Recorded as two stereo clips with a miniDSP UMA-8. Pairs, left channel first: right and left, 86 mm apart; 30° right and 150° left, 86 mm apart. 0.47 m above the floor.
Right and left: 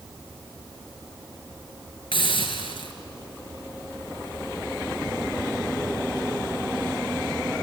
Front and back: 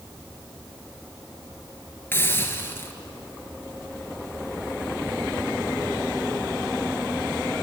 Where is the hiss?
95° right, 2 m.